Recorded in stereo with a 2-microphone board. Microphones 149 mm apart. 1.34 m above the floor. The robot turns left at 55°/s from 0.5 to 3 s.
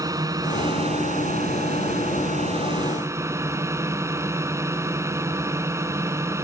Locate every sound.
0.0 s a drone: 25° right; by 6.4 s 160° right